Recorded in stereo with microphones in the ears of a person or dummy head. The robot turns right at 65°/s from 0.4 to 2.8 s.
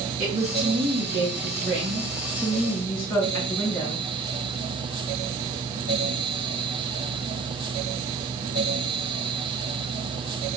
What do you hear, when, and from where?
0.2 s a woman speaking: 140° right, 1.7 m; by 4.0 s 15° left, 1.7 m